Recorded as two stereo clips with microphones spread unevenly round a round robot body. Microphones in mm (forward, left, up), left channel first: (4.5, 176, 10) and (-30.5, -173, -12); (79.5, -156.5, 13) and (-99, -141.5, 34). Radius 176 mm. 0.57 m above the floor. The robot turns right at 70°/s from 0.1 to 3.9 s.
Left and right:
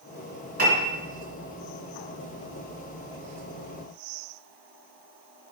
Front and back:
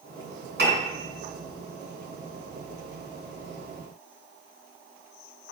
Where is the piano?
160° right, 3 m; by 0.9 s 140° right, 3 m.